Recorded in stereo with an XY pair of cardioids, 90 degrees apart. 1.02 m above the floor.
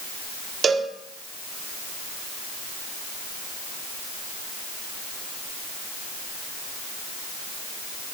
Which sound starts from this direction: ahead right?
A cowbell, at 0.6 s.